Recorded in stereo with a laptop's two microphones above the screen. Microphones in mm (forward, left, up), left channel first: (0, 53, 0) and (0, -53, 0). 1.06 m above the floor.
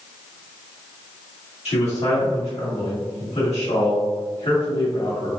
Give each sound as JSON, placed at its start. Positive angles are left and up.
{"t": 1.6, "sound": "a man speaking", "side_deg": 75, "distance_m": 2.0}